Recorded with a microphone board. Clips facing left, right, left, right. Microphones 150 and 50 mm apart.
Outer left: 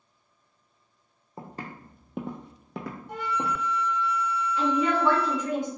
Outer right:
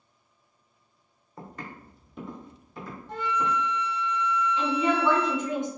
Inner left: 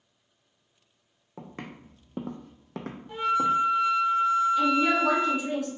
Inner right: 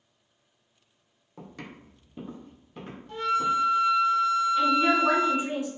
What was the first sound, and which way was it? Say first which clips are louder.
Footsteps: outer left 2 dB, inner left 2 dB; 25° left (ahead or behind).